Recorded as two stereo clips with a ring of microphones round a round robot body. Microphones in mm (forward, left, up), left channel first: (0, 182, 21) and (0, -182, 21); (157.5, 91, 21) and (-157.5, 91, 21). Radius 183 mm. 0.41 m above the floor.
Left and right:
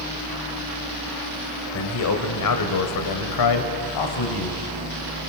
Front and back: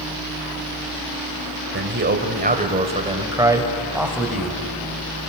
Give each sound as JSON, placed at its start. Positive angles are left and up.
{"t": 1.7, "sound": "a man speaking", "azimuth_deg": 135, "distance_m": 2.0}